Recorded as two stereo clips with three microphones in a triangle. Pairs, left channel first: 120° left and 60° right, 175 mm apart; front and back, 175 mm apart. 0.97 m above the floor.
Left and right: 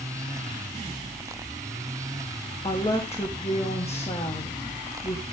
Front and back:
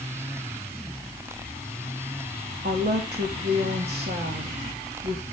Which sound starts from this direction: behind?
A woman speaking, at 2.6 s.